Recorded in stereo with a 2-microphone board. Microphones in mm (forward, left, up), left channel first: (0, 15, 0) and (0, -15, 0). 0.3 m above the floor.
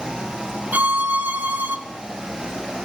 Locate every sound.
0.7 s a violin: 75° right (ahead or behind), 1.9 m